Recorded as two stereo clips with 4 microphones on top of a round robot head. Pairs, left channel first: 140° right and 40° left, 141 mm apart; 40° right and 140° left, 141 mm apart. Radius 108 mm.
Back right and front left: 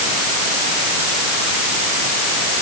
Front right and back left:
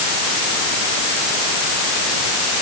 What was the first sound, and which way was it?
Only background noise.